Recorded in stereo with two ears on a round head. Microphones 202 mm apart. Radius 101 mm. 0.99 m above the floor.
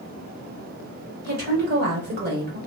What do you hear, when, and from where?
1.2 s a woman speaking: 45° right (ahead or behind), 1.7 m